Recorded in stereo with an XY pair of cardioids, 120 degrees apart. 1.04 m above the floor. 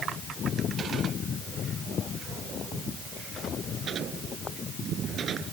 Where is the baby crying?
No baby crying in this recording.